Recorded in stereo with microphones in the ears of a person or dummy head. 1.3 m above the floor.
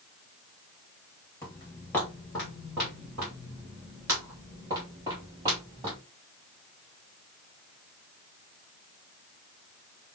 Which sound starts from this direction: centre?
Footsteps, at 1.4 s.